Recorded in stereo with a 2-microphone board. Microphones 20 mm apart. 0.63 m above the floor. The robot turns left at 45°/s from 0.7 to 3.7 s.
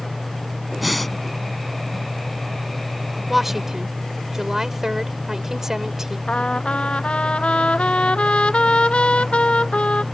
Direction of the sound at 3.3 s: 5° right (ahead or behind).